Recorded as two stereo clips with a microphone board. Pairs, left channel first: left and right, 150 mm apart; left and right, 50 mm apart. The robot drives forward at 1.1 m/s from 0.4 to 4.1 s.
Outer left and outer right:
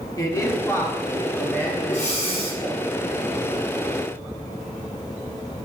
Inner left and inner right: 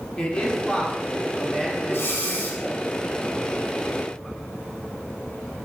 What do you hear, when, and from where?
0.2 s a man speaking: 20° left (ahead or behind), 1.1 m; by 2.8 s 5° left (ahead or behind), 3.5 m
1.9 s breathing: 60° left (ahead or behind), 1.3 m; by 2.6 s 40° left (ahead or behind), 1.8 m